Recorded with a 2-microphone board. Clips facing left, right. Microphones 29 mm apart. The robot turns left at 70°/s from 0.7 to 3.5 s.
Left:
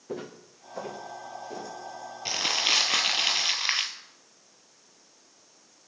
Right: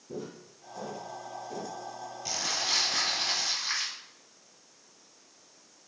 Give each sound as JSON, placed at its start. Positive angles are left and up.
{"t": 0.1, "sound": "footsteps", "side_deg": 65, "distance_m": 2.0}
{"t": 2.2, "sound": "crumpling", "azimuth_deg": 145, "distance_m": 1.1}